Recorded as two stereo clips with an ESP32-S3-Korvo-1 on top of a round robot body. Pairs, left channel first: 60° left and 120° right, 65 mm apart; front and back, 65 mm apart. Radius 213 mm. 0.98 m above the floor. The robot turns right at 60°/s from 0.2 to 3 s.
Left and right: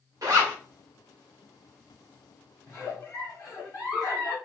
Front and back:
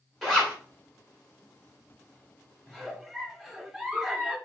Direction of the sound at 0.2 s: 85° right.